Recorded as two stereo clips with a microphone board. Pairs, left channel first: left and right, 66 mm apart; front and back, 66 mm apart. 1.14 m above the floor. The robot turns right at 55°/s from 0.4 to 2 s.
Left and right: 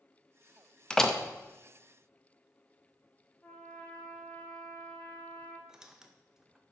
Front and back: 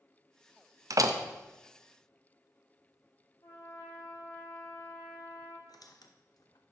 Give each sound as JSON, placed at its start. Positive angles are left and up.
{"t": 0.9, "sound": "a door slam", "azimuth_deg": 165, "distance_m": 0.6}
{"t": 3.4, "sound": "a trumpet", "azimuth_deg": 20, "distance_m": 1.5}
{"t": 5.7, "sound": "a squeak", "azimuth_deg": -10, "distance_m": 0.7}